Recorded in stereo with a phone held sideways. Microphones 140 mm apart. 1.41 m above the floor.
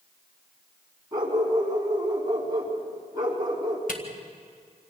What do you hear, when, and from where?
1.1 s a dog barking: 30° right (ahead or behind), 4.5 m
3.9 s a camera shutter: 70° left (ahead or behind), 3 m